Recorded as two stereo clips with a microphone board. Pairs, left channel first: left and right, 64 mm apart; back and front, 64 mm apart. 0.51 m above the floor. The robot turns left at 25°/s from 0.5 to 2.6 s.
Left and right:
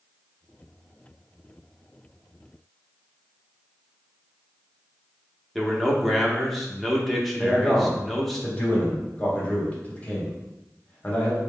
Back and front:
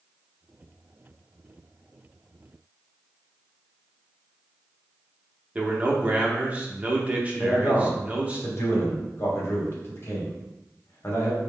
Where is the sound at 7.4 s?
145° left, 1.2 m.